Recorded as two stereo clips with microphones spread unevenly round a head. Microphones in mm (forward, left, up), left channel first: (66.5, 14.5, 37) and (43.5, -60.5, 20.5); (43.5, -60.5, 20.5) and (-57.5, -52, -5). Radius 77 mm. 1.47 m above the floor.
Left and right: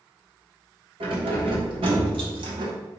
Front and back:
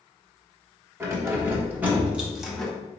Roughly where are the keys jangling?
Behind right.